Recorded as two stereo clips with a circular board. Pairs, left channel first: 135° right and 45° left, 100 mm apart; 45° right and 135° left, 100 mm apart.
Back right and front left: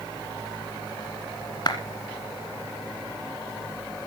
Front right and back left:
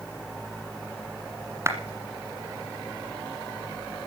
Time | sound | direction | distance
1.7 | a clap | 170° right | 1.7 m